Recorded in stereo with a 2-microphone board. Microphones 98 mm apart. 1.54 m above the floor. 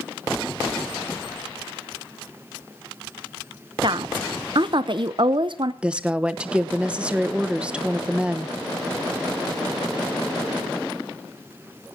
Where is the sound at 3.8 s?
55° right (ahead or behind), 0.8 m.